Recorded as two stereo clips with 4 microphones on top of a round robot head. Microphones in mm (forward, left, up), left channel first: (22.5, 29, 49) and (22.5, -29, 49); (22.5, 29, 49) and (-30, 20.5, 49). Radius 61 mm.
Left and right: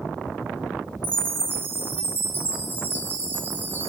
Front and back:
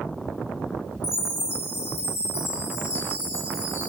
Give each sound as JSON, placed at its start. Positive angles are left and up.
{"t": 1.0, "sound": "a chime", "azimuth_deg": -35, "distance_m": 2.5}